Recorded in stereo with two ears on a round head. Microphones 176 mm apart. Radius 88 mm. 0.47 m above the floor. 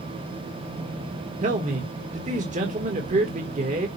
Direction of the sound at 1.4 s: 35° right (ahead or behind).